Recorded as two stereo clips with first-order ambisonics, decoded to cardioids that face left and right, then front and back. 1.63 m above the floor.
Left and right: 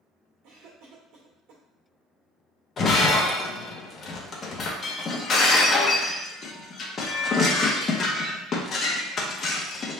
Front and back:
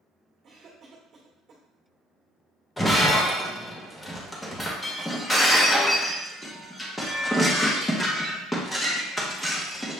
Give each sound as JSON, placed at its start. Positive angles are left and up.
{"t": 0.4, "sound": "a cough", "azimuth_deg": -115, "distance_m": 1.5}
{"t": 2.8, "sound": "breaking glass", "azimuth_deg": 70, "distance_m": 0.8}